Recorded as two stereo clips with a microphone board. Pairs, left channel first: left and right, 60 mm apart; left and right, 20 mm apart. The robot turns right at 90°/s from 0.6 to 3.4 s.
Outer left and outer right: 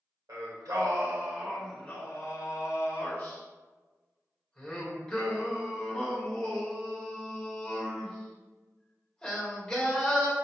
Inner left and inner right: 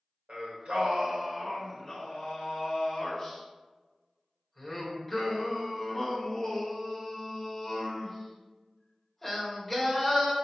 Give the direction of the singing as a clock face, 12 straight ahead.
3 o'clock.